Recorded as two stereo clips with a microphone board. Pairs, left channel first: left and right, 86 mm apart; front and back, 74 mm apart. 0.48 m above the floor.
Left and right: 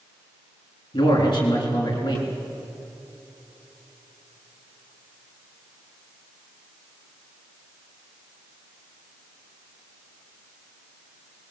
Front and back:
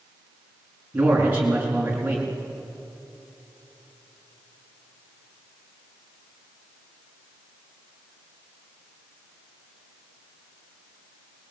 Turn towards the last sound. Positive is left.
turn(degrees=110)